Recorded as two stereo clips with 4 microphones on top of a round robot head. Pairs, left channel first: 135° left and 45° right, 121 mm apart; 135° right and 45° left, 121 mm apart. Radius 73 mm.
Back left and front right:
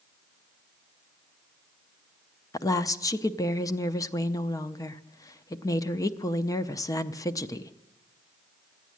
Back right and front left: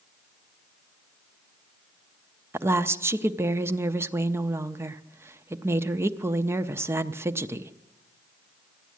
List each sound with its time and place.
2.5 s a woman speaking: 100° left, 0.6 m